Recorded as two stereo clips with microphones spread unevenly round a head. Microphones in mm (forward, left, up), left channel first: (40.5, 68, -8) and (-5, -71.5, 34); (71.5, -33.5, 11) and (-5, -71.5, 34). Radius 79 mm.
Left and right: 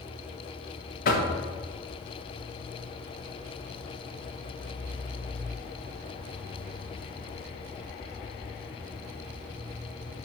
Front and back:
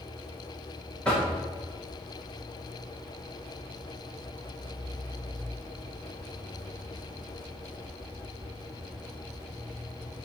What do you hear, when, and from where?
1.1 s knocking: 115° left, 0.8 m